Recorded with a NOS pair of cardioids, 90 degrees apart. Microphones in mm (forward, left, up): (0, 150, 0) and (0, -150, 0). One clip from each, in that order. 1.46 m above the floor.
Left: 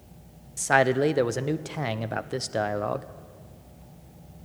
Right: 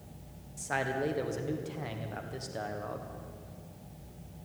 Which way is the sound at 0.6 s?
55° left.